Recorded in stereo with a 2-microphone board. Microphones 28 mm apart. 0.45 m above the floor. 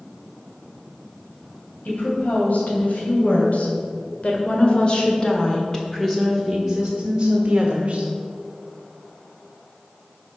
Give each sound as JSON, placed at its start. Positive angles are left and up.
{"t": 1.9, "sound": "a woman speaking", "side_deg": 70, "distance_m": 3.0}